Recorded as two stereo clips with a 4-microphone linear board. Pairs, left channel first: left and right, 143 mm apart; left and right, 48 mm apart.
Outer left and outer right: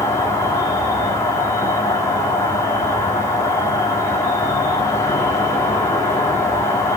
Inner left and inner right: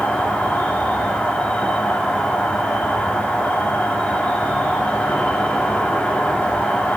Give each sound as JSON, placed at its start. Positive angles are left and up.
{"t": 0.0, "sound": "an insect", "side_deg": 20, "distance_m": 2.0}